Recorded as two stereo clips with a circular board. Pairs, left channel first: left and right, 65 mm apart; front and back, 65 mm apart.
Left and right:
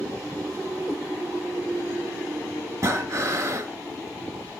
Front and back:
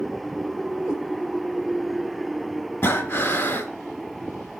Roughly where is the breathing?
Ahead right.